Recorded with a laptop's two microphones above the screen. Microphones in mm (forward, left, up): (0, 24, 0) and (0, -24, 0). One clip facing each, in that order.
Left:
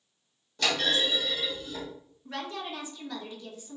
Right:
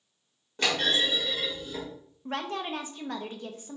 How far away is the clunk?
About 1.6 m.